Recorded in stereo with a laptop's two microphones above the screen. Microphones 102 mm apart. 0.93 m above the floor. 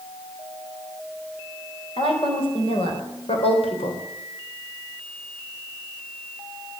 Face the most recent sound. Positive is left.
turn(degrees=75)  # may be behind; listen again after turning